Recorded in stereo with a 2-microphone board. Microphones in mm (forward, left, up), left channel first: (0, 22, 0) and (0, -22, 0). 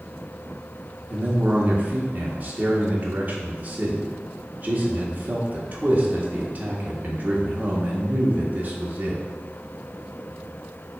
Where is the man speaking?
35° right (ahead or behind), 0.8 m.